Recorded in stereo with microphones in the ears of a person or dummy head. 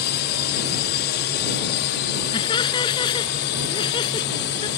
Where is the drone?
55° left (ahead or behind); by 4.8 s 60° left (ahead or behind).